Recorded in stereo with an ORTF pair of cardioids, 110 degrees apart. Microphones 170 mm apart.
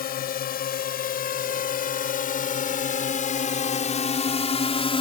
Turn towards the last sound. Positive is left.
turn(degrees=35)